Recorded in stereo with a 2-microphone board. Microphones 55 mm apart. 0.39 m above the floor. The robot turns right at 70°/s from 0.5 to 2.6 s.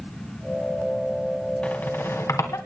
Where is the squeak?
25° left (ahead or behind), 2.5 m; by 2.6 s 70° left (ahead or behind), 2.5 m.